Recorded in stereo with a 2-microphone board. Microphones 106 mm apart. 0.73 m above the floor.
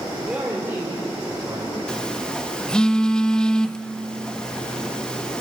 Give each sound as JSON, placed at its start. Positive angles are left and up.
{"t": 0.2, "sound": "a man speaking", "side_deg": -15, "distance_m": 2.5}
{"t": 1.9, "sound": "a phone buzzing", "side_deg": 10, "distance_m": 0.7}